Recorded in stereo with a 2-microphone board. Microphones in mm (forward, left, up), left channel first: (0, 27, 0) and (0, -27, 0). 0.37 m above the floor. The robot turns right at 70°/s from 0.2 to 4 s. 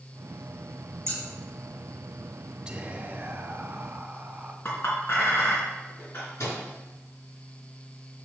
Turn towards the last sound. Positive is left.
turn(degrees=70)  # may be behind; listen again after turning